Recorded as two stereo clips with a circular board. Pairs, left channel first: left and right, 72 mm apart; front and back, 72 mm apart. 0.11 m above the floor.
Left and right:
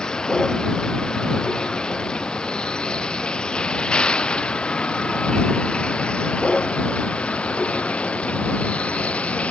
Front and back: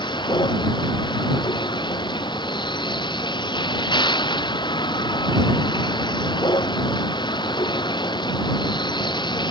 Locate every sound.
0.0 s a vehicle: 10° left; by 9.5 s 15° left